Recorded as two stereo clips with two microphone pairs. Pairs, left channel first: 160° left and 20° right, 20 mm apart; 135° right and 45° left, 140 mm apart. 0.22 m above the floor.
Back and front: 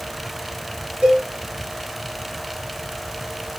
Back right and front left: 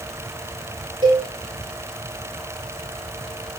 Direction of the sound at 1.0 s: 5° right.